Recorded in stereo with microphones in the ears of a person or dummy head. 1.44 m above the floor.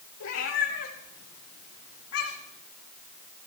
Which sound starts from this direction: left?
A cat meowing, at 0.2 s.